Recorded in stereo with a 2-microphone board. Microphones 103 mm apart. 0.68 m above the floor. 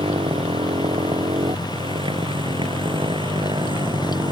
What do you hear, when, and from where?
0.0 s a motorcycle: 65° right (ahead or behind); by 4.3 s 50° right (ahead or behind)